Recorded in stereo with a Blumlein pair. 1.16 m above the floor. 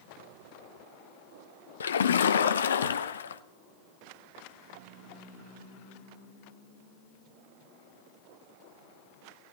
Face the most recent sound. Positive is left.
turn(degrees=65)